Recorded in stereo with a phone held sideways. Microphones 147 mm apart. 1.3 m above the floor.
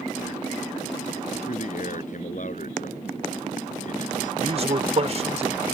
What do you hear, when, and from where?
1.5 s a man speaking: 60° left (ahead or behind)
4.4 s a man speaking: 45° right (ahead or behind)